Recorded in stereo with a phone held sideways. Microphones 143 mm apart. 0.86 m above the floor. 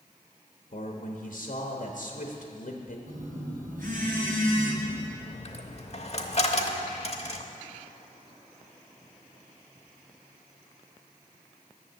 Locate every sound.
0.7 s a man speaking: 60° left (ahead or behind), 1.2 m
3.1 s a phone buzzing: 80° right, 3 m
5.2 s a dropped coin: 50° left (ahead or behind), 0.9 m